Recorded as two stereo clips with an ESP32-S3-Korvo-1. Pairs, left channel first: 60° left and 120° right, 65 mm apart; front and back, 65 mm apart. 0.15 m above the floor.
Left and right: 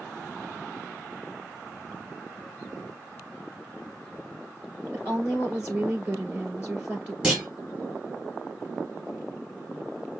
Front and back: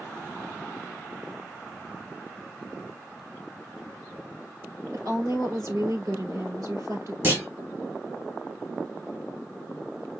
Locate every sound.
4.9 s a woman speaking: 175° left, 2.5 m
7.2 s a clunk: 170° left, 2 m